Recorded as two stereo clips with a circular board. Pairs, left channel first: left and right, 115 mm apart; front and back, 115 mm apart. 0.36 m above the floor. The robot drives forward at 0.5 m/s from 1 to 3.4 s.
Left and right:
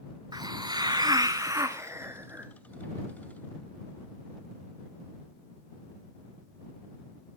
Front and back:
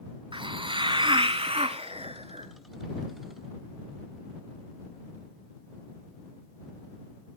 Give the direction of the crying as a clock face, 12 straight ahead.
I don't hear crying.